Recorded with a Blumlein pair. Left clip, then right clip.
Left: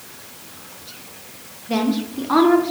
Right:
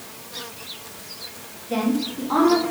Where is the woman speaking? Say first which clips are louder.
Left 2 dB; 50° left, 1.1 m.